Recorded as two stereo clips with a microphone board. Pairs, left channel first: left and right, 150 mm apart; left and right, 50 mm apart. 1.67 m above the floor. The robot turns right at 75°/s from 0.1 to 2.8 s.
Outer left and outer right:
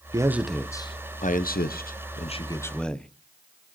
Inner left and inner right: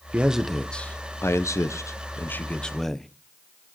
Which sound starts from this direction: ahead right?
A man speaking, at 0.1 s.